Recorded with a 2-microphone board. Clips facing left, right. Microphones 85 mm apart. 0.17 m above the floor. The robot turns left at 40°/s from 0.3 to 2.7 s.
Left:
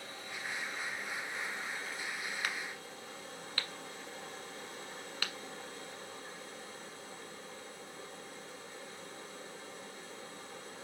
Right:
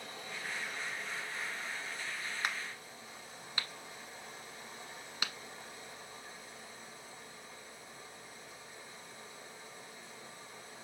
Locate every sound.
0.0 s running water: 160° right, 3.5 m; by 10.9 s 105° left, 3.5 m
2.4 s a crack: 25° right (ahead or behind), 1.1 m; by 5.3 s 15° right (ahead or behind), 1.1 m